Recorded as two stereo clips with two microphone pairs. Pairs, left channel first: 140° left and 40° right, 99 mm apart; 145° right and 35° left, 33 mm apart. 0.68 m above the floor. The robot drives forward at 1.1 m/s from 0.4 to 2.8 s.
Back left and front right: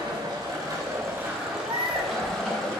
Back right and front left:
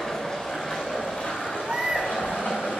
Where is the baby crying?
35° right, 1.3 m; by 2.1 s 55° right, 0.9 m.